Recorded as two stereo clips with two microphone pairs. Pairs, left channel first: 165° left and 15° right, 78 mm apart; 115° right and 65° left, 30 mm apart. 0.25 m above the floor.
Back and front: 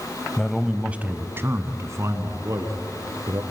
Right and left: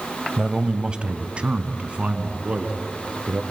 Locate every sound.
0.4 s a man speaking: 90° left, 1.1 m; by 3.4 s 20° left, 3.5 m